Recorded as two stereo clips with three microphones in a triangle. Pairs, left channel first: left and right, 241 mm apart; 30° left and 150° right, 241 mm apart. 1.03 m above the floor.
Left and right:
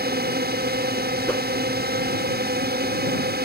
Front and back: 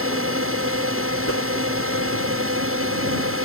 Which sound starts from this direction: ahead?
A whoosh, at 1.3 s.